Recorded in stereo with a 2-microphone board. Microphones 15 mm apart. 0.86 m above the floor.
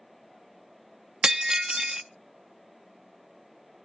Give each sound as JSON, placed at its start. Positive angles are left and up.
{"t": 1.2, "sound": "breaking glass", "side_deg": -55, "distance_m": 0.6}